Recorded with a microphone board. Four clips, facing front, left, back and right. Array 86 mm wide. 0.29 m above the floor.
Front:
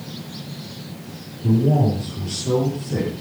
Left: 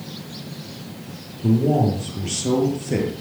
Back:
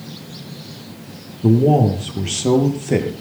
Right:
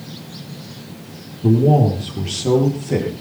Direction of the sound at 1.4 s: 165° right.